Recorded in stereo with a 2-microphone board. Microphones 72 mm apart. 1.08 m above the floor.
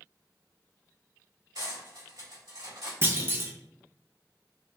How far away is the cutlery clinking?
About 1.9 m.